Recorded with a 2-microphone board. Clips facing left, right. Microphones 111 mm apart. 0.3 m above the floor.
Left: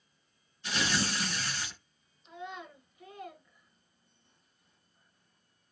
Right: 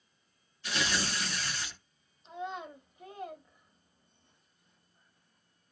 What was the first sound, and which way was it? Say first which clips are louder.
Tearing paper: left 1 dB; 25° left (ahead or behind).